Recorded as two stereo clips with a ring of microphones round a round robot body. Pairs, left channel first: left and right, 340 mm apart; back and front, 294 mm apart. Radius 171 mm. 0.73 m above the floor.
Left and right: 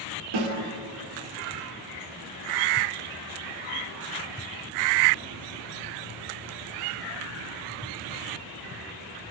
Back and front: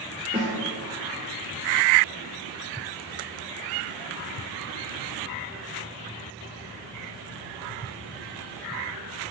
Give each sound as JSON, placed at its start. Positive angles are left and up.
{"t": 0.3, "sound": "a snare drum", "azimuth_deg": -75, "distance_m": 1.5}